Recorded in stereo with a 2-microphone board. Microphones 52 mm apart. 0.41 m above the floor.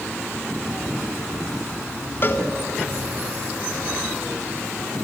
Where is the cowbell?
45° left (ahead or behind), 1.1 m.